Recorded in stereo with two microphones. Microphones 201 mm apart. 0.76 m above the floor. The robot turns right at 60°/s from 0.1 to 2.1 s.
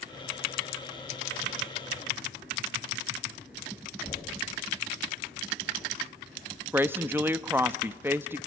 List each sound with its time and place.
4.0 s knocking: 25° left (ahead or behind), 3.5 m
6.7 s a woman speaking: 10° right (ahead or behind), 0.6 m